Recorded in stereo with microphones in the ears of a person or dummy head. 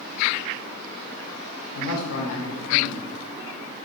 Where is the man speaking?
80° left, 1.1 m.